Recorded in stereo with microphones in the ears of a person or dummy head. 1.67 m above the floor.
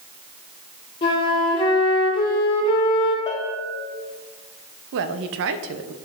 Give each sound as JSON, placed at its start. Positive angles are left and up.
{"t": 1.0, "sound": "a flute", "side_deg": 25, "distance_m": 1.5}
{"t": 3.3, "sound": "a bell", "side_deg": 15, "distance_m": 2.0}
{"t": 4.9, "sound": "a woman speaking", "side_deg": -55, "distance_m": 0.8}